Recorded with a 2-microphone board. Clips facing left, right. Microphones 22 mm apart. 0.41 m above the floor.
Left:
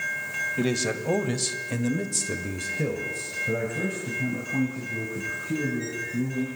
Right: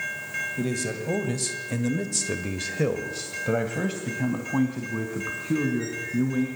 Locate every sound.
0.6 s a man speaking: 35° left (ahead or behind), 2.5 m; by 6.5 s 80° right, 5.5 m